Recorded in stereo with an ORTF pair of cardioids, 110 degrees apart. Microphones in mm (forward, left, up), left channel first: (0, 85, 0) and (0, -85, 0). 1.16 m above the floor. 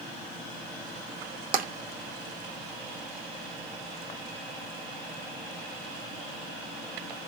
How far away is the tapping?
About 1.1 m.